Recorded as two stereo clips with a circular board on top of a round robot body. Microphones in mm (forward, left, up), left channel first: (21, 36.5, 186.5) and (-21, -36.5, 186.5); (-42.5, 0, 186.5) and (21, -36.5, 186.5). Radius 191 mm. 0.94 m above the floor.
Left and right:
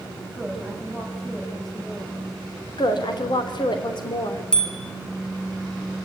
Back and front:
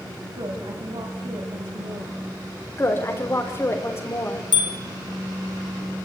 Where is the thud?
No thud in this recording.